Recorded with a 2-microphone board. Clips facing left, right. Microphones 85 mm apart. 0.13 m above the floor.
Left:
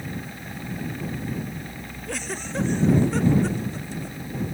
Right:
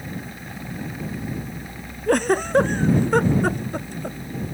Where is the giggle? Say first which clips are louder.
Right 14 dB; 55° right (ahead or behind).